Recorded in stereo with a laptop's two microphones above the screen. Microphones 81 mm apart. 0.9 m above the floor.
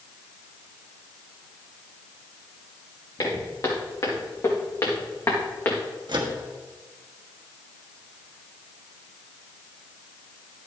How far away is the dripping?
No dripping in this recording.